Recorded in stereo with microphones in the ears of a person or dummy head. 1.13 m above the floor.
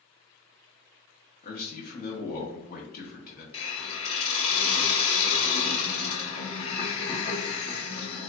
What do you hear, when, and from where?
1.4 s a man speaking: 45° left (ahead or behind), 0.8 m
3.5 s a hiss: 35° left (ahead or behind), 0.8 m